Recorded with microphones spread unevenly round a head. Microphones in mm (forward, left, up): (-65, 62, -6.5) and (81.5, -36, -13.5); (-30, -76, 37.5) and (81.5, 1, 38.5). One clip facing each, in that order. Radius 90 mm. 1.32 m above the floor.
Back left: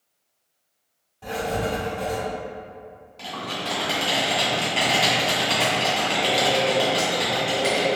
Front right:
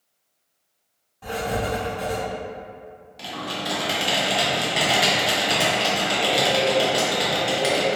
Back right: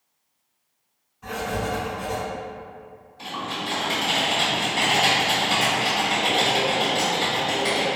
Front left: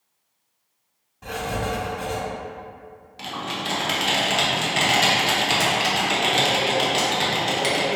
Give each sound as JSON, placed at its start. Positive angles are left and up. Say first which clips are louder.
{"t": 1.2, "sound": "writing", "louder": "even, even", "azimuth_deg": 55, "distance_m": 1.8}
{"t": 3.2, "sound": "typing on a keyboard", "louder": "front right 1 dB, front left 1 dB", "azimuth_deg": 40, "distance_m": 0.8}